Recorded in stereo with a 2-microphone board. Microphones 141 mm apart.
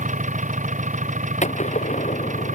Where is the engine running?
60° right (ahead or behind).